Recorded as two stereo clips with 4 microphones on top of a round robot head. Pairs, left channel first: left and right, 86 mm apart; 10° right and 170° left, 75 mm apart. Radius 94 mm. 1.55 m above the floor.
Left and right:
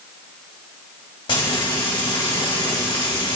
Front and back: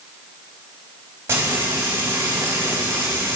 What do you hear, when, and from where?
1.3 s frying: 115° left, 4 m